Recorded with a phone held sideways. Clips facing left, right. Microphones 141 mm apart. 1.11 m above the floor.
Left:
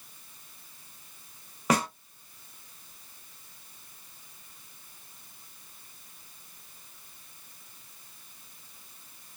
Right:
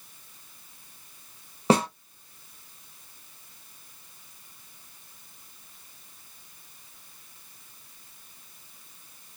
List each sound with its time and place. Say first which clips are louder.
1.7 s a snare drum: right 5 dB; 30° right (ahead or behind), 0.8 m